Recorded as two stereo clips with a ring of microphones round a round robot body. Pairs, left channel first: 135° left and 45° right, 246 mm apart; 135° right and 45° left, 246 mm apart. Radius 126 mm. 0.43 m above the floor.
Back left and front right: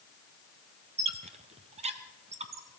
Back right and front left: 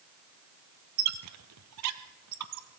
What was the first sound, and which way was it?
A squeak, 20° left.